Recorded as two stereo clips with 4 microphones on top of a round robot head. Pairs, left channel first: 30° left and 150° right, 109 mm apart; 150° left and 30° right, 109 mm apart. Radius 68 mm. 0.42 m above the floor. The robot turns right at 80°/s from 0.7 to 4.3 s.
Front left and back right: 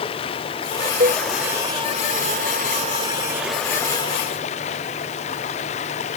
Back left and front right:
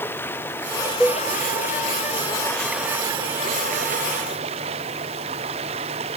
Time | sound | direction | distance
0.0 | running water | 75° left | ?
1.0 | a cowbell | 125° right | ?